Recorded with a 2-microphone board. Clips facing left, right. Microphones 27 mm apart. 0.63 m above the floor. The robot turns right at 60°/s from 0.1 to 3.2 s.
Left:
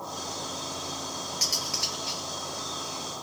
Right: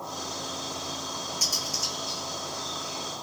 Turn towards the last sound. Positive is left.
turn(degrees=135)